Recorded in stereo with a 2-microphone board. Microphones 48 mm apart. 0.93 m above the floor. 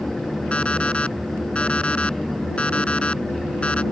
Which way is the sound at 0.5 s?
25° left (ahead or behind).